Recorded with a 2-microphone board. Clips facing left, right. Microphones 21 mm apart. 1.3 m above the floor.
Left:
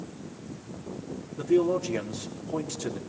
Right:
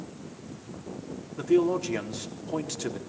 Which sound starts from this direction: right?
A man speaking, at 1.4 s.